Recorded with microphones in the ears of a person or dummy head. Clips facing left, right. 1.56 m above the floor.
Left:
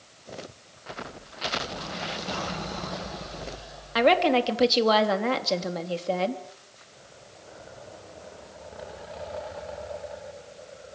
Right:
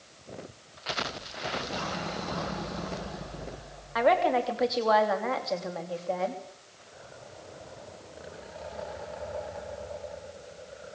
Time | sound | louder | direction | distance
4.0 | a woman speaking | left 3 dB | 40° left (ahead or behind) | 3 m